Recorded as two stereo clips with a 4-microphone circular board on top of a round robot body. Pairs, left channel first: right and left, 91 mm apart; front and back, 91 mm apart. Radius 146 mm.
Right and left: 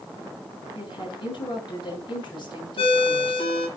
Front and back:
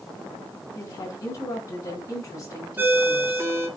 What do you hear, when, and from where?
0.7 s a woman speaking: 55° right, 5.5 m
2.8 s a ringtone: 110° right, 2.0 m